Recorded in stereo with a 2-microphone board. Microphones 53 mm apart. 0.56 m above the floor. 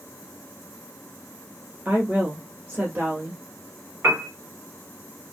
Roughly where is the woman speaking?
Right.